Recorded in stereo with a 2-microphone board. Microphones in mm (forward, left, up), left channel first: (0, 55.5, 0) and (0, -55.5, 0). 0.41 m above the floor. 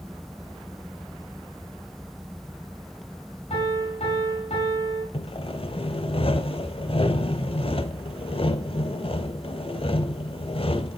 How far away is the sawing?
About 0.7 m.